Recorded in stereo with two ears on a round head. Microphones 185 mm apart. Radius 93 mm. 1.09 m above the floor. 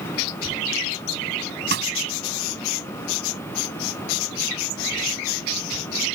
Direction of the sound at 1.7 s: 55° right (ahead or behind).